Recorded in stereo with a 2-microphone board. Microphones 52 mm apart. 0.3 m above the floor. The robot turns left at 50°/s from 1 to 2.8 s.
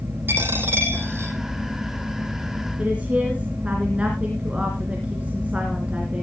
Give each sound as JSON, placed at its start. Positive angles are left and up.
{"t": 0.3, "sound": "a dropped coin", "side_deg": -45, "distance_m": 5.0}
{"t": 2.8, "sound": "a woman speaking", "side_deg": -20, "distance_m": 3.0}